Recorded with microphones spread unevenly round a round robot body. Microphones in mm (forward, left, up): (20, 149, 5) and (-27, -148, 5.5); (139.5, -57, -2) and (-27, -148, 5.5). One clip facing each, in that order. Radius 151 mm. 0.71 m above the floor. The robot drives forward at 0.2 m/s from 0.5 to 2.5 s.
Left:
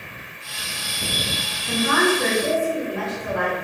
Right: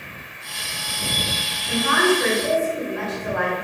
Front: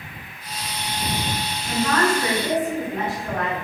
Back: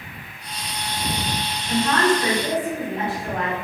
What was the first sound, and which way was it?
A woman speaking, 120° left.